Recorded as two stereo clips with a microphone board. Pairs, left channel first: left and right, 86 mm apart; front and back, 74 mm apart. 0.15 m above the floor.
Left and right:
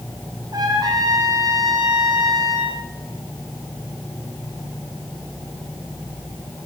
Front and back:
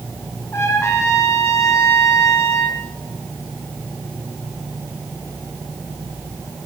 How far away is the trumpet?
About 10 m.